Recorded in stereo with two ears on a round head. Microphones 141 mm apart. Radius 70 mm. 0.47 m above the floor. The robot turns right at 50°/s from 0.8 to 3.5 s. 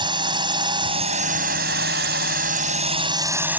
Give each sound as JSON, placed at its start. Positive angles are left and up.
{"t": 0.0, "sound": "a drone", "azimuth_deg": -145}